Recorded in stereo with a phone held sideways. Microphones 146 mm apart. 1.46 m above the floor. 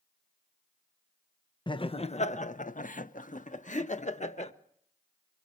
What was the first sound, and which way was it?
Laughter, 35° left (ahead or behind).